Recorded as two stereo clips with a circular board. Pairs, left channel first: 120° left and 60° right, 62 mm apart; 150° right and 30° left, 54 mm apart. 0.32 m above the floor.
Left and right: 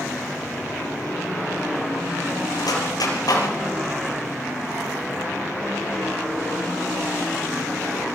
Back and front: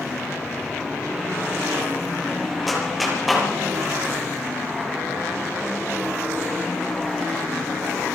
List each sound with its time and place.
2.7 s a clap: 120° left, 5.5 m